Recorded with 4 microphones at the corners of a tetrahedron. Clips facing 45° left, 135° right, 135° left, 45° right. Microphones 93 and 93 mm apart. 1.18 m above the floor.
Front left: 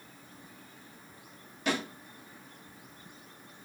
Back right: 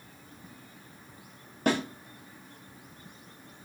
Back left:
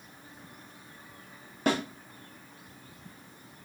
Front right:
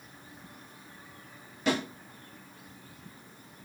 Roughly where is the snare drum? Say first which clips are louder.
Back right 5 dB, back left 1 dB; behind.